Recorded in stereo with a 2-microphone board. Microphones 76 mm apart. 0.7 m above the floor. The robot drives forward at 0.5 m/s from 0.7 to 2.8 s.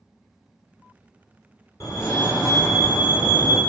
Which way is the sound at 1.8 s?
45° left (ahead or behind).